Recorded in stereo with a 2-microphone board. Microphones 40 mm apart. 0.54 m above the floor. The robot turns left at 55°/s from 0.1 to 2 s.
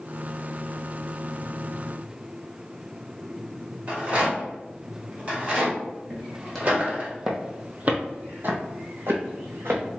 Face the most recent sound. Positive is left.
turn(degrees=-70)  # may be behind; listen again after turning